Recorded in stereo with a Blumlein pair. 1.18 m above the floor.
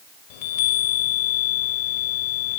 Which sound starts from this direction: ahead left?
A chime, at 0.3 s.